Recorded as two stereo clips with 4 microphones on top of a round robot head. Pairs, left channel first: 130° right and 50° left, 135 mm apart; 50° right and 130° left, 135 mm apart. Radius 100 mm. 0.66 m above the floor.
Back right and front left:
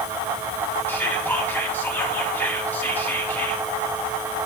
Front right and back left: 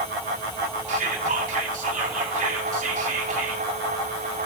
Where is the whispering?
155° left, 3 m.